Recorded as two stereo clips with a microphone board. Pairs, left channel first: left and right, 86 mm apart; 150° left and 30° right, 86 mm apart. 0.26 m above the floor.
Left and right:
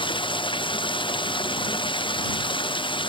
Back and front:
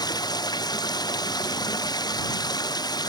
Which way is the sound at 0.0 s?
110° left.